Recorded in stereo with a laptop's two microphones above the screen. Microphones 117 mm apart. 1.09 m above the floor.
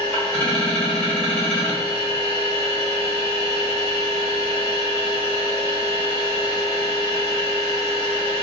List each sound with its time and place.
0.0 s a machine running: 10° left (ahead or behind), 1.6 m